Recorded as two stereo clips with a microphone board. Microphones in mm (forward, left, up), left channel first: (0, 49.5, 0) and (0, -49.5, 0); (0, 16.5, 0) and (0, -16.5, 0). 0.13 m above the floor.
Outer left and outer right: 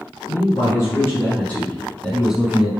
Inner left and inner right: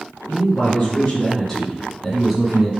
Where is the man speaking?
35° left (ahead or behind), 1.8 m; by 2.7 s 10° right (ahead or behind), 1.5 m.